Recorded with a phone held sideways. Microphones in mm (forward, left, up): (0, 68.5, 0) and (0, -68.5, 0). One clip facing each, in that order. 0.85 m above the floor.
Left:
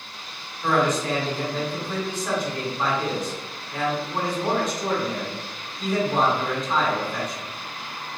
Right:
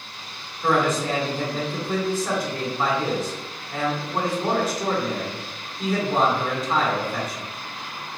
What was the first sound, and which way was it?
A man speaking, 5° right (ahead or behind).